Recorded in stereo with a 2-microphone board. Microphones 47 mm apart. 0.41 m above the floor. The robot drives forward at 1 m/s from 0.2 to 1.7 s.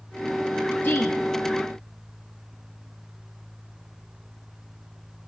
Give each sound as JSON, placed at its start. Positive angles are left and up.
{"t": 0.8, "sound": "a woman speaking", "side_deg": 45, "distance_m": 9.5}